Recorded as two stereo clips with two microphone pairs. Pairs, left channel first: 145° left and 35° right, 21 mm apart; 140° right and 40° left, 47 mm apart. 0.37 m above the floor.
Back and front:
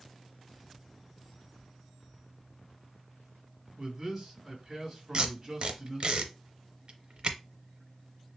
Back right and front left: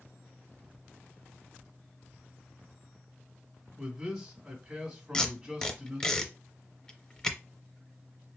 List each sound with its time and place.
3.8 s a man speaking: 25° right, 1.3 m
5.1 s tape being pulled: 70° right, 0.6 m